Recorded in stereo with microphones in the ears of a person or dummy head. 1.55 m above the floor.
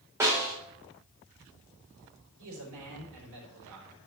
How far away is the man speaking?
About 4 m.